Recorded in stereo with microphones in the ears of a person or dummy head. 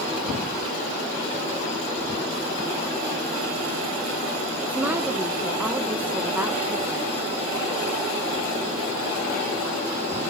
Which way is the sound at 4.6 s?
10° right (ahead or behind).